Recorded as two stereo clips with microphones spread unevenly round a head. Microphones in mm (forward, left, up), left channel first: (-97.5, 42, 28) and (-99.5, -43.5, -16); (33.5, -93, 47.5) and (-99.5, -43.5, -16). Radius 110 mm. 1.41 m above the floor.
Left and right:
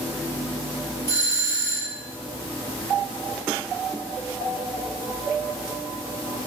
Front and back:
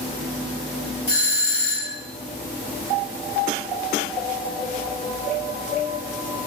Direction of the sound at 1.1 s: Straight ahead.